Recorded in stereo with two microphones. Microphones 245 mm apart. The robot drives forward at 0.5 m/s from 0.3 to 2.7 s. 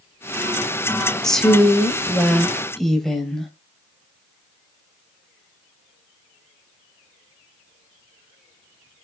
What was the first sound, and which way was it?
A woman speaking, centre (ahead or behind).